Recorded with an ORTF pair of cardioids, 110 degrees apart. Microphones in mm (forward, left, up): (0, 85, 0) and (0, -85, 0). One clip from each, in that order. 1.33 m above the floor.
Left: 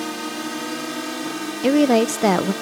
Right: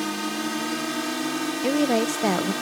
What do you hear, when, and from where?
0.0 s a drone: 5° right; by 2.6 s 10° right
1.6 s a woman speaking: 25° left